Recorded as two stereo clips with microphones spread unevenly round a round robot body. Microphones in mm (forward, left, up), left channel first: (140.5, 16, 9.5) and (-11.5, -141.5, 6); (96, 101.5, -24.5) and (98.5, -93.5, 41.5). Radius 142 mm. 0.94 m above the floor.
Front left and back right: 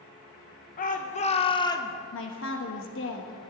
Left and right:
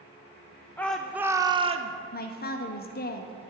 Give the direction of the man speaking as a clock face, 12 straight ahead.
9 o'clock.